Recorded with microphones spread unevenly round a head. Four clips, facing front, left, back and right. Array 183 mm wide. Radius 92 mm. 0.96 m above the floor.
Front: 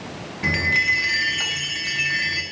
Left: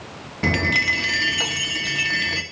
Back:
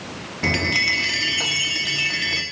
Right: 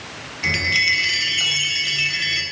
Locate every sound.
0.4 s a chime: 125° left, 1.0 m